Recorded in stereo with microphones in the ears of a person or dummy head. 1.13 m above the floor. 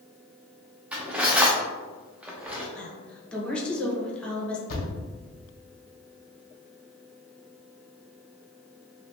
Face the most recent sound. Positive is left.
turn(degrees=45)  # may be behind; listen again after turning